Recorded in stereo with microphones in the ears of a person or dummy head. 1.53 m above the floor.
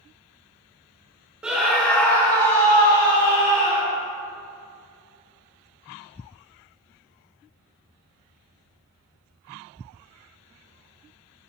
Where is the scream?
10° right (ahead or behind), 1.0 m; by 4.0 s 20° left (ahead or behind), 3 m.